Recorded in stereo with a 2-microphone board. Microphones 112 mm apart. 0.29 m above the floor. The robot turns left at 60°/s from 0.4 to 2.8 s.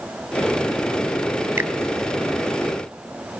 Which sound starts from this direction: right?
A finger snap, at 1.6 s.